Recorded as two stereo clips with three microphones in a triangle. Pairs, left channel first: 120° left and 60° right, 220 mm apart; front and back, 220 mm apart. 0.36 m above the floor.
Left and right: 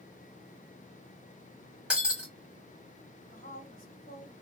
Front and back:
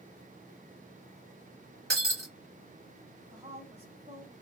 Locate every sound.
1.9 s breaking glass: 145° right, 1.1 m
3.3 s a woman speaking: 130° left, 1.4 m